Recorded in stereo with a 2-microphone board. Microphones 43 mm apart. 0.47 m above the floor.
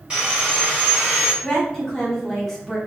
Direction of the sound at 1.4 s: 5° left (ahead or behind).